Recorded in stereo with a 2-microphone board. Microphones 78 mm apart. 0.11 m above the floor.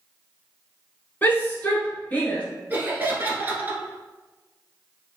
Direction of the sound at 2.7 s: 25° right (ahead or behind).